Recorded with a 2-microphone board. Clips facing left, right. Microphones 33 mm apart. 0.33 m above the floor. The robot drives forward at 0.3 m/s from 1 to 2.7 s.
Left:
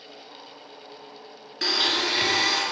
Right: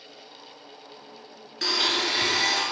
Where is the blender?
15° left (ahead or behind), 0.7 m; by 2.6 s 10° left (ahead or behind), 1.0 m.